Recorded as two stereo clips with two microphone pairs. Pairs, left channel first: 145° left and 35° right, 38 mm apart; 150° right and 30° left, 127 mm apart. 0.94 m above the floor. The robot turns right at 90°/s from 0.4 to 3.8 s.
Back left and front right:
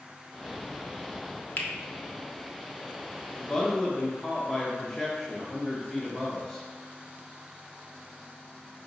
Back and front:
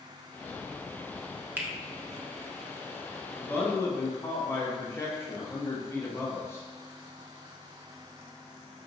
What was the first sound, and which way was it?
A finger snap, 105° left.